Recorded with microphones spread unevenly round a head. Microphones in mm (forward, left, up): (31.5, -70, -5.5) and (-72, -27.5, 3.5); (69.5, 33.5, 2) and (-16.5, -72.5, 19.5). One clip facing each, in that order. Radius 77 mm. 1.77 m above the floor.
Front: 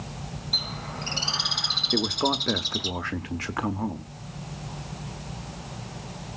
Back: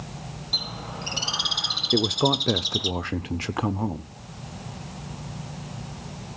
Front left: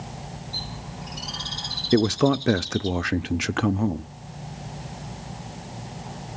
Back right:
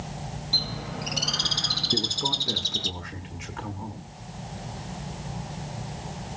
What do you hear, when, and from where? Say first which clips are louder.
0.5 s a bird: back 2 dB, back right 3 dB; 125° right, 1.7 m
1.9 s a man speaking: back 3 dB, front left 13 dB; 85° left, 0.6 m